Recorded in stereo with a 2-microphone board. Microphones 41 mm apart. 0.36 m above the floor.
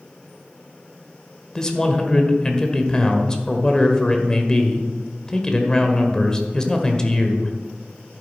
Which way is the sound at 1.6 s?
15° left (ahead or behind).